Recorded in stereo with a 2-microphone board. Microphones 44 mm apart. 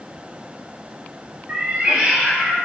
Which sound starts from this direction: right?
A cat meowing, at 1.5 s.